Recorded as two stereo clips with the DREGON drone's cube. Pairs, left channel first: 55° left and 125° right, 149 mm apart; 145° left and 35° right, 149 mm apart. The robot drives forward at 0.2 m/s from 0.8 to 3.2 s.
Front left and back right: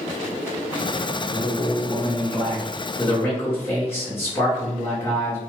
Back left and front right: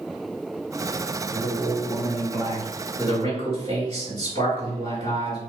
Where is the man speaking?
105° left, 1.8 m; by 5.4 s 120° left, 1.9 m.